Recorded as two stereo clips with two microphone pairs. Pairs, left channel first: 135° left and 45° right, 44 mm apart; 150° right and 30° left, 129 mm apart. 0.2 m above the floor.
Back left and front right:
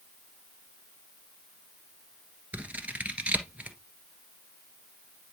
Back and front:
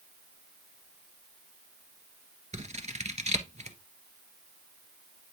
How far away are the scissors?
About 1.4 m.